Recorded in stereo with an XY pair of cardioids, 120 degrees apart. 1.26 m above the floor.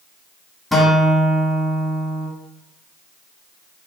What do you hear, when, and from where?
0.7 s a guitar: 10° left, 0.9 m